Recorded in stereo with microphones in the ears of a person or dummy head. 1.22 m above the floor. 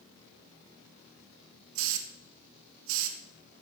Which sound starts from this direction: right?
A hiss, at 1.8 s.